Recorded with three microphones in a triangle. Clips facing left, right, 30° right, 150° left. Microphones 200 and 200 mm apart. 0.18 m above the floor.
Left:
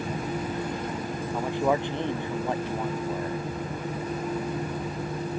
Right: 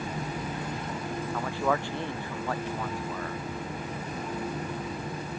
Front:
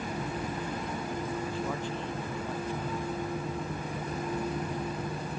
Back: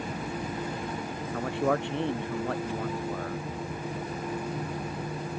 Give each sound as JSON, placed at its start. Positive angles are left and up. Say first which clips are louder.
{"t": 1.3, "sound": "a man speaking", "louder": "left 4 dB, back 6 dB", "azimuth_deg": 160}